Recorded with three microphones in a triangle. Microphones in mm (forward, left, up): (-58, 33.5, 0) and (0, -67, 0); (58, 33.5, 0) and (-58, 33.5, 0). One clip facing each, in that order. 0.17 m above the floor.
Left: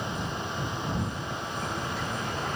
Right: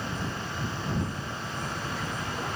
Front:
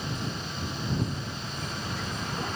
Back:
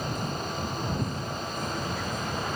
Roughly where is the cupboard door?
I don't hear a cupboard door.